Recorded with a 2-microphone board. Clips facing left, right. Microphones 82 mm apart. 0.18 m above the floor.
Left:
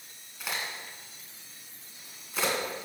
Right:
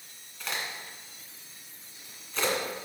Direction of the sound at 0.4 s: 10° left (ahead or behind).